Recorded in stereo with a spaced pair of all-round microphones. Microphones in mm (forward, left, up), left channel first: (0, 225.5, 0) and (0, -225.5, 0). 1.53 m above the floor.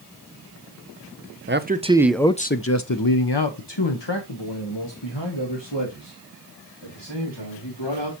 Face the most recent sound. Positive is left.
turn(degrees=80)